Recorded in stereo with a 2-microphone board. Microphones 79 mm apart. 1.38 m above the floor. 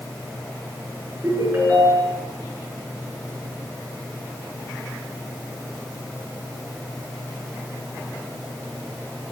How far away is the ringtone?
About 7 m.